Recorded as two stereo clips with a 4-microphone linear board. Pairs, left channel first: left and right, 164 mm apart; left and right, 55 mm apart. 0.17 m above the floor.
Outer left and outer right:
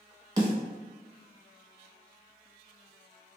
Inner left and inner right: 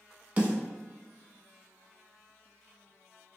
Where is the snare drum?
30° right (ahead or behind), 0.8 m.